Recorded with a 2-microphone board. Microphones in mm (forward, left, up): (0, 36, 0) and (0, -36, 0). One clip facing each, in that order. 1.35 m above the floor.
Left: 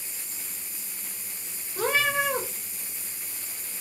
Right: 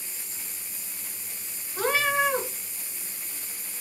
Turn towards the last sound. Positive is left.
turn(degrees=-25)  # may be behind; listen again after turning